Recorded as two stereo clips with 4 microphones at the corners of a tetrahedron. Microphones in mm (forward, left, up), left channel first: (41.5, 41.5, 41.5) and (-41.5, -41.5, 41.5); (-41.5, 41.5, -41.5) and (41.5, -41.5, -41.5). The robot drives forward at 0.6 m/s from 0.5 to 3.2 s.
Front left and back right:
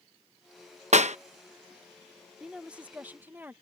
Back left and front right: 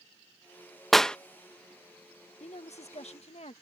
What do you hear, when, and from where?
0.9 s a clap: 135° right; by 1.2 s 145° right
2.4 s a woman speaking: 140° left; by 3.5 s 150° left